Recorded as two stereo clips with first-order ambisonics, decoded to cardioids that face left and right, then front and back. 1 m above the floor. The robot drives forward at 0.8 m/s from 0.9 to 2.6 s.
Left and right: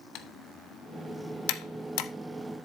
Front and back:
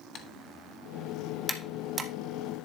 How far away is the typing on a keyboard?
About 1.1 m.